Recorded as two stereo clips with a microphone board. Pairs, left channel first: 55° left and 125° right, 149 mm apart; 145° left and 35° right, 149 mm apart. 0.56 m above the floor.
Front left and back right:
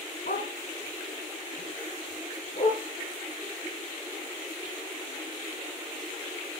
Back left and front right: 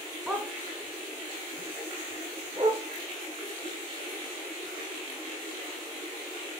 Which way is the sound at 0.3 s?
50° left.